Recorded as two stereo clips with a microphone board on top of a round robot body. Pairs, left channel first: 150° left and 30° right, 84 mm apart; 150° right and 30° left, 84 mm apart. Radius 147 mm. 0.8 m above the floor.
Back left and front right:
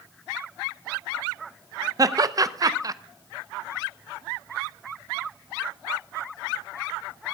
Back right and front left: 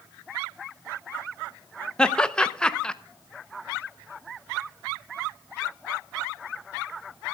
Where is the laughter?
70° right, 1.1 m.